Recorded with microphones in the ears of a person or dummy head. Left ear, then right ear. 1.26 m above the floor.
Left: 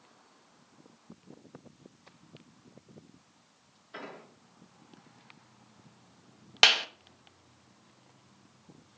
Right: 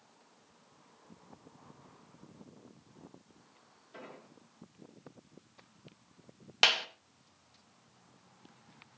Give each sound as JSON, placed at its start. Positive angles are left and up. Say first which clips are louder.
{"t": 3.9, "sound": "an explosion", "louder": "left 6 dB", "side_deg": 50, "distance_m": 5.0}
{"t": 6.6, "sound": "a clap", "louder": "left 5 dB", "side_deg": 10, "distance_m": 1.4}